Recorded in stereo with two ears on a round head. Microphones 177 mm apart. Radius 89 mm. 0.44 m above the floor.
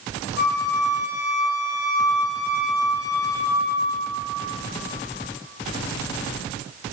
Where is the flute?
50° left (ahead or behind), 1.9 m.